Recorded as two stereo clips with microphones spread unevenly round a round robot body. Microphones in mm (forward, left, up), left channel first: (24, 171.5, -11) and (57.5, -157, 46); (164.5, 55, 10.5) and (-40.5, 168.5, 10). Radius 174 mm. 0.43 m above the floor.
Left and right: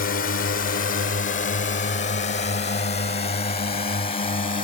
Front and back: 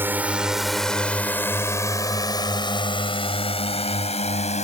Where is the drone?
75° left; by 4.7 s 30° left.